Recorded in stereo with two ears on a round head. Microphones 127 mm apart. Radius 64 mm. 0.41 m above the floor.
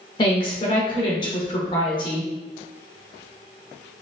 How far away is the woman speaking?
About 0.9 m.